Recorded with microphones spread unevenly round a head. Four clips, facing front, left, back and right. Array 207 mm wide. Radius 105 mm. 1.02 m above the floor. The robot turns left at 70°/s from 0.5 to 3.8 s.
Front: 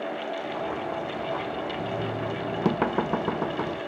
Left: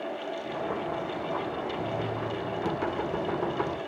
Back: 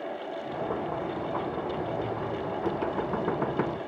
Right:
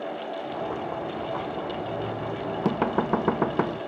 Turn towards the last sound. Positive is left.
turn(degrees=-115)